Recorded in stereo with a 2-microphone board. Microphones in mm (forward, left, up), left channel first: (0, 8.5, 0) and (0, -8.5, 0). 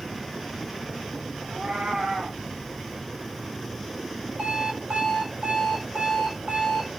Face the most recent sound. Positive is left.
turn(degrees=-85)